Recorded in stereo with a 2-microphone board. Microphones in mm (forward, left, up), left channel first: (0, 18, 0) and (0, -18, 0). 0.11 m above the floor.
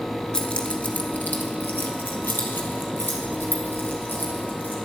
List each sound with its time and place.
0.3 s keys jangling: 25° left (ahead or behind), 1.2 m; by 4.8 s 60° left (ahead or behind), 3.5 m